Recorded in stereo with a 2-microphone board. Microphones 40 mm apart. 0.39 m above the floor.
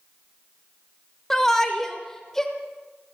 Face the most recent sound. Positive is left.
turn(degrees=10)  # may be behind; listen again after turning